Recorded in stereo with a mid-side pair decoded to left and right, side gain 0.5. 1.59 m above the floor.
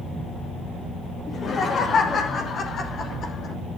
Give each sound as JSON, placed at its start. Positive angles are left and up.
{"t": 1.3, "sound": "laughter", "azimuth_deg": 40, "distance_m": 2.5}